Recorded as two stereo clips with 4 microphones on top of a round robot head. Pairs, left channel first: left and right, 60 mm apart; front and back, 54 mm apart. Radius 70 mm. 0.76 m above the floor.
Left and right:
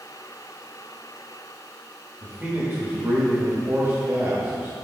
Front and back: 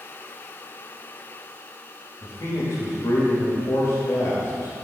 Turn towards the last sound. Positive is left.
turn(degrees=-30)